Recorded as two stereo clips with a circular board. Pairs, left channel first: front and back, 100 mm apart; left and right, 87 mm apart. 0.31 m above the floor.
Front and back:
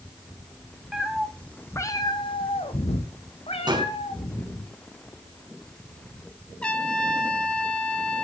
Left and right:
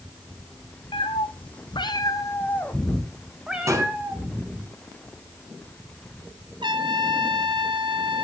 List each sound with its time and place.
0.9 s a cat meowing: 95° left, 2.5 m; by 4.7 s 25° right, 4 m
3.7 s a gunshot: 140° right, 3.5 m
6.6 s a trumpet: 75° right, 3 m